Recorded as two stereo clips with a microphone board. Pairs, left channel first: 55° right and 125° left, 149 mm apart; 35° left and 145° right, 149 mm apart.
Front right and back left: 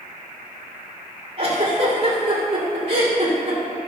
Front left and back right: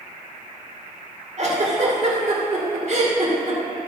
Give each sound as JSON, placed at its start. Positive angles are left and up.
{"t": 1.4, "sound": "a giggle", "azimuth_deg": 175, "distance_m": 2.0}